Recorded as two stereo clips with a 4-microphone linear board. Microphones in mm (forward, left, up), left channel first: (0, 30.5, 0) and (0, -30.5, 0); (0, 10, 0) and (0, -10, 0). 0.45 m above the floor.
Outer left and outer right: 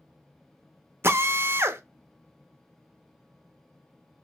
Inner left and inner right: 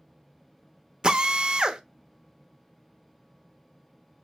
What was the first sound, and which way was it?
A drill, 40° right (ahead or behind).